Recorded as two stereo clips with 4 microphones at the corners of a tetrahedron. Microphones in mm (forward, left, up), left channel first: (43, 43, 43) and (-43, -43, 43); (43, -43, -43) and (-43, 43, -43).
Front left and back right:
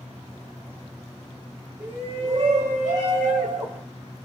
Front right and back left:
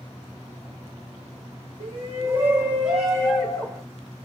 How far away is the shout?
About 0.7 m.